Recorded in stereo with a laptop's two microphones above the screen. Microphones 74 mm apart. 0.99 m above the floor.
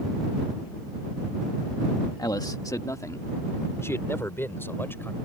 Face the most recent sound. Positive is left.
turn(degrees=30)  # may be behind; listen again after turning